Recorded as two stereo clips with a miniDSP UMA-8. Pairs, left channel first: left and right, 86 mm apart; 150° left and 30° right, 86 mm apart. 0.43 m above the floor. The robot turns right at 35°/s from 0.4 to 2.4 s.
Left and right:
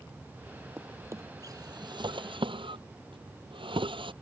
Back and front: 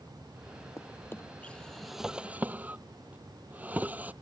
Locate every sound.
0.8 s a drawer: 160° right; by 4.1 s 100° right